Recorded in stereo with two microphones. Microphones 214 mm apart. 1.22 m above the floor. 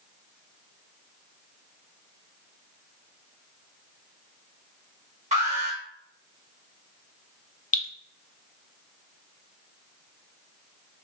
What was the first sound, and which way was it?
An alarm, 35° right (ahead or behind).